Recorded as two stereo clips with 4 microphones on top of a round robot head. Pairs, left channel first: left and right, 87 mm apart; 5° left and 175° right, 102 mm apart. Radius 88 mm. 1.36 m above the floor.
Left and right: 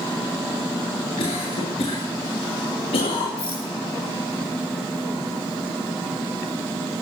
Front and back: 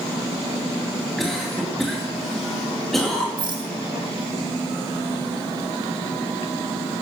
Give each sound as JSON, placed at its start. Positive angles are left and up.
{"t": 1.2, "sound": "a cough", "azimuth_deg": 90, "distance_m": 2.0}
{"t": 3.4, "sound": "a rattle", "azimuth_deg": 145, "distance_m": 7.5}